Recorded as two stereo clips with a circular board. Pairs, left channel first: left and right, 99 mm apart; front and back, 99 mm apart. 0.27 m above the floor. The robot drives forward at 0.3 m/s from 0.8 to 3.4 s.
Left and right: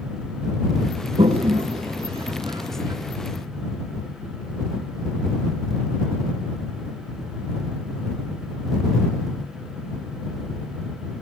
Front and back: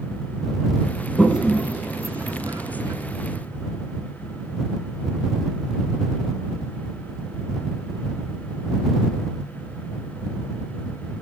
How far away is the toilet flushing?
About 0.6 m.